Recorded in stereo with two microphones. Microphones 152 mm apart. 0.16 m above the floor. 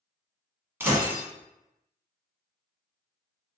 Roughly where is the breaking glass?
Centre.